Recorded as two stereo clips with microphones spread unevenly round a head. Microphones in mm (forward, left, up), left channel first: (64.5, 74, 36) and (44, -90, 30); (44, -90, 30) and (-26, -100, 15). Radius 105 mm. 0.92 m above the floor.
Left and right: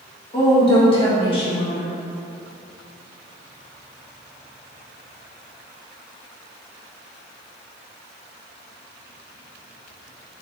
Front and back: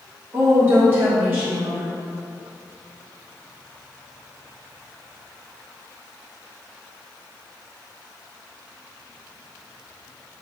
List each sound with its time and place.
0.3 s a woman speaking: 140° left, 1.1 m